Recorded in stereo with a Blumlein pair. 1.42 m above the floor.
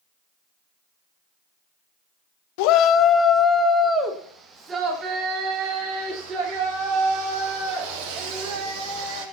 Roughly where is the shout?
Ahead left.